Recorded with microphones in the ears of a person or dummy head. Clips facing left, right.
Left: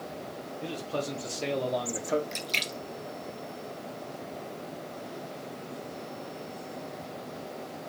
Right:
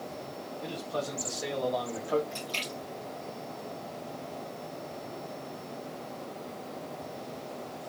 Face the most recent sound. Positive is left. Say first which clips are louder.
# even
turn(degrees=30)  # may be behind; listen again after turning